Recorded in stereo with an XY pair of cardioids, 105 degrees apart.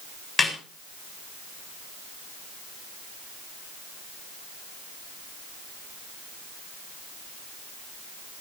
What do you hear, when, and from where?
0.4 s a snare drum: 25° left, 7.5 m